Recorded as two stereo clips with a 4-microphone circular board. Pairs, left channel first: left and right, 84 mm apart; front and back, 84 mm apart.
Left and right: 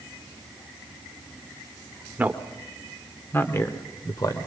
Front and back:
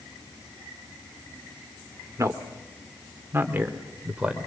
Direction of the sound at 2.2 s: 150° right.